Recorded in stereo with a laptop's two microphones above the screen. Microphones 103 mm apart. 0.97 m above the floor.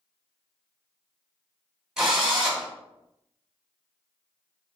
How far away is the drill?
About 2 m.